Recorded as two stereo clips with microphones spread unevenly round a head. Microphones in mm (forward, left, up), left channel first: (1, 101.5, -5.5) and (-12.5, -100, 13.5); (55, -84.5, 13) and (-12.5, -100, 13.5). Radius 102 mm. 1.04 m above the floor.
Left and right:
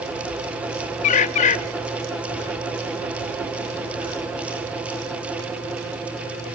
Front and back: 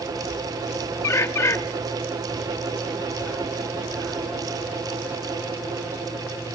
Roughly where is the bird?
Ahead left.